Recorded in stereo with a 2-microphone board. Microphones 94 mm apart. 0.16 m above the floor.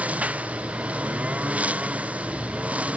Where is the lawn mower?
15° right (ahead or behind).